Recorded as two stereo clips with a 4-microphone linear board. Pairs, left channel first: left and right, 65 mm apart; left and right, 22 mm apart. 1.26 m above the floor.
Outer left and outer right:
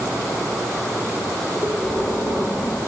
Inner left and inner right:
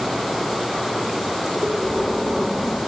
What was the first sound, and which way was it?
Breathing, 30° left (ahead or behind).